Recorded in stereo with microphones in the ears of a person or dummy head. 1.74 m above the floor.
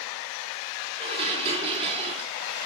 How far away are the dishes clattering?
About 3.5 m.